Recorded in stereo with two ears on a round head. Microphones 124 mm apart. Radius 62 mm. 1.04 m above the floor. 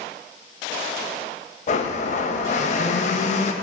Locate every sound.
1.7 s a blender: 55° left (ahead or behind), 0.8 m